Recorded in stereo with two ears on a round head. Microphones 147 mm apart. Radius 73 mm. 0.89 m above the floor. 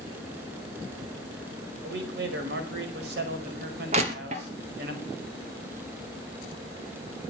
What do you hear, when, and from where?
1.8 s a man speaking: 75° right (ahead or behind), 5 m
3.9 s crushing: 45° right (ahead or behind), 3 m